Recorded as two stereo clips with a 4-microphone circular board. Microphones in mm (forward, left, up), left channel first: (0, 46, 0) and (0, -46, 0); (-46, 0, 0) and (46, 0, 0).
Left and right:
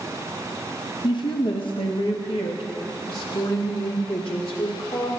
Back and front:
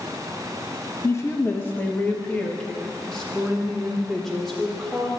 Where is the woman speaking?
125° left, 1.0 m; by 5.1 s 90° left, 3.5 m.